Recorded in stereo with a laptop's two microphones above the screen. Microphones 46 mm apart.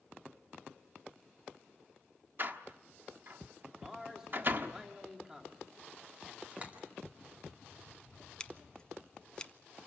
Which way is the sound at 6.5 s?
30° right (ahead or behind).